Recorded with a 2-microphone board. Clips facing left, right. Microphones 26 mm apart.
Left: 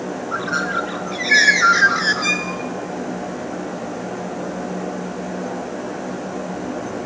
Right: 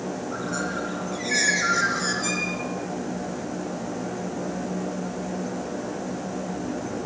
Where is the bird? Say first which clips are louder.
Left 10 dB; 45° left (ahead or behind), 1.7 m.